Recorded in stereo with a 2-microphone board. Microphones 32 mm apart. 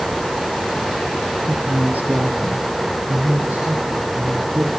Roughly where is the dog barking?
I don't hear a dog barking.